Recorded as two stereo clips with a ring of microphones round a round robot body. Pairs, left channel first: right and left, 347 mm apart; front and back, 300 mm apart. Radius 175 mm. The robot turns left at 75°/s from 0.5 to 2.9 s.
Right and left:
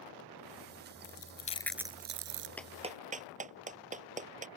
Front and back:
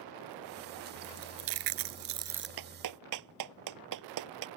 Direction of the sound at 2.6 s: 175° right.